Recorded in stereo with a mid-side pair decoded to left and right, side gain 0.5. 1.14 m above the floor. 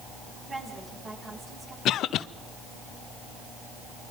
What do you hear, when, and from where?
0.5 s a woman speaking: 30° right, 9.5 m
1.9 s a cough: 65° left, 0.9 m